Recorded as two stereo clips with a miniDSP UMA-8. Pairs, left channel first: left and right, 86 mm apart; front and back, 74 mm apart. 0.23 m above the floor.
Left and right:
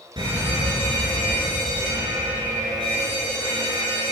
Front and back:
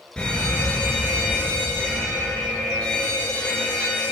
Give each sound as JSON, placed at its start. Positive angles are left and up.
{"t": 0.2, "sound": "a fire alarm", "azimuth_deg": -75, "distance_m": 5.0}